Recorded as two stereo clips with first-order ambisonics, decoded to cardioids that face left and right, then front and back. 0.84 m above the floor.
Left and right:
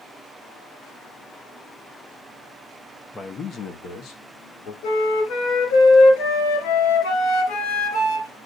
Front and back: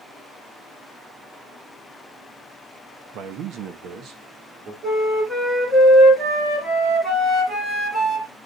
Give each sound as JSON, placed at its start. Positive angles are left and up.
{"t": 3.1, "sound": "a man speaking", "azimuth_deg": 165, "distance_m": 0.7}
{"t": 4.8, "sound": "a flute", "azimuth_deg": 105, "distance_m": 3.0}